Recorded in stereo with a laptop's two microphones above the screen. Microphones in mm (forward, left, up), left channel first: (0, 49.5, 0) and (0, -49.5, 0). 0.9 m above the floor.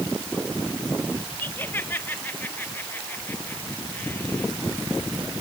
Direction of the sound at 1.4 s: 20° left (ahead or behind).